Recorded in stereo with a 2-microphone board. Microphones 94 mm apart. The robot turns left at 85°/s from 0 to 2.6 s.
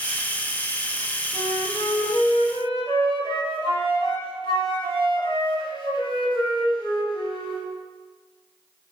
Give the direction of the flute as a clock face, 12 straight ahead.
6 o'clock.